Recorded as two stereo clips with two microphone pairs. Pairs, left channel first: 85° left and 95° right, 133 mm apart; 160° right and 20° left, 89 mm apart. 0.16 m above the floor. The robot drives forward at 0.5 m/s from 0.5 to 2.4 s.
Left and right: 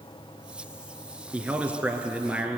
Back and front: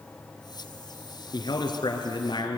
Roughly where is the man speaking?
Behind.